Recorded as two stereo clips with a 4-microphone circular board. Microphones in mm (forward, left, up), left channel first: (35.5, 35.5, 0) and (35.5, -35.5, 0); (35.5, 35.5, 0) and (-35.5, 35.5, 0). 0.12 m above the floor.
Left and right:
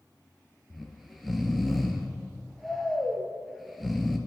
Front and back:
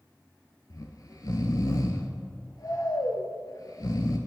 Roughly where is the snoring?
Ahead.